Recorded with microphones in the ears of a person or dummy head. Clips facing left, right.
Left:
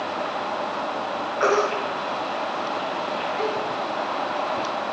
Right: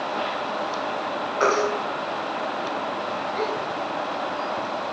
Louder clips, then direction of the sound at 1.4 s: Left 1 dB; 50° right (ahead or behind).